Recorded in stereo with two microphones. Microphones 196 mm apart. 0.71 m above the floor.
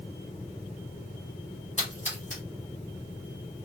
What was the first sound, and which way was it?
A splash, 40° left (ahead or behind).